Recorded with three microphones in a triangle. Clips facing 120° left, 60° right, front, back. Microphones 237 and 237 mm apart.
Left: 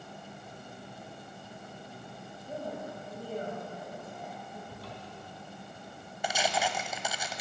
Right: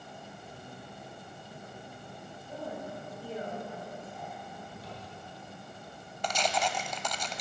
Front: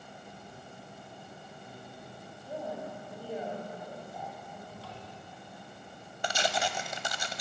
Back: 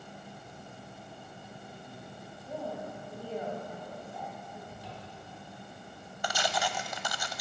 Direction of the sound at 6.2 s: 45° left.